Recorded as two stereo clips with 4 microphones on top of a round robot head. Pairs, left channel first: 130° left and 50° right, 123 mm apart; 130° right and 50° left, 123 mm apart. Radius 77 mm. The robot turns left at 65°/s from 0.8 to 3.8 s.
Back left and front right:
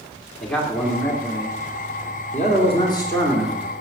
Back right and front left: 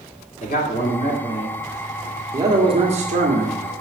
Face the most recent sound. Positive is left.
turn(degrees=20)